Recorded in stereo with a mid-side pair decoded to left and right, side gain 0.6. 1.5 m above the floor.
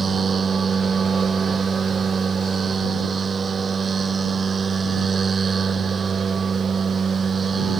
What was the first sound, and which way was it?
A machine running, 30° right.